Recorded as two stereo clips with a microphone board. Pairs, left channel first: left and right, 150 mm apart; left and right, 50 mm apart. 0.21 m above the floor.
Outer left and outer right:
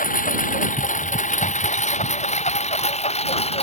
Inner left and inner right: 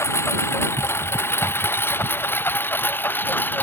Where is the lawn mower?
65° left (ahead or behind); by 3.6 s 45° left (ahead or behind).